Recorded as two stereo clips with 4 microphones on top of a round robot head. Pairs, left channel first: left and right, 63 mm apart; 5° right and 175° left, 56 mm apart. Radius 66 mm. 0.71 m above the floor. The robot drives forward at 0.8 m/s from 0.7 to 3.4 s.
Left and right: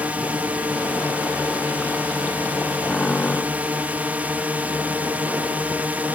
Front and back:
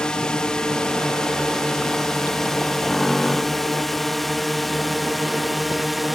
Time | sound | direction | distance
0.0 | a drone | 65° right | ?